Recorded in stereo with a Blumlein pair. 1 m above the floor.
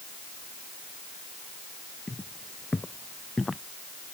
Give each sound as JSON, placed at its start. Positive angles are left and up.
{"t": 2.1, "sound": "footsteps", "azimuth_deg": 10}